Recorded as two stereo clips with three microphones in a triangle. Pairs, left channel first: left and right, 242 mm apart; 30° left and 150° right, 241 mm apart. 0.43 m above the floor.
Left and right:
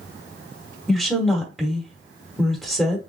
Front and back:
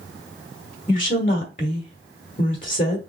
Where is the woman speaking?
Straight ahead, 1.2 m.